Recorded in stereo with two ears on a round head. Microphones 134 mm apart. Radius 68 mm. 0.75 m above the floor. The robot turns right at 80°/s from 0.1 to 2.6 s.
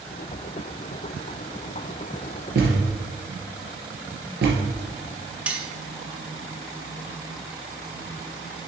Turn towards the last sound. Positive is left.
turn(degrees=-10)  # may be behind; listen again after turning